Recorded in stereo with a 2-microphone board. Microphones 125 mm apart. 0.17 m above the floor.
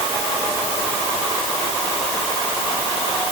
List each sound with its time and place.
Only background noise.